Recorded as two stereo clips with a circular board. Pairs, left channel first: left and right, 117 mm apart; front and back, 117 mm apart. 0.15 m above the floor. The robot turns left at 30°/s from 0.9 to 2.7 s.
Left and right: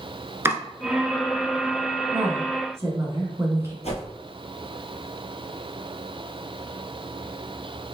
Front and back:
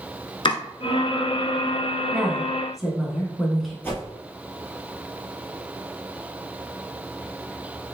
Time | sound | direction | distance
0.5 | chopping | 25° right | 0.8 m
2.1 | a woman speaking | 70° right | 1.2 m
3.8 | a whoosh | 75° left | 1.7 m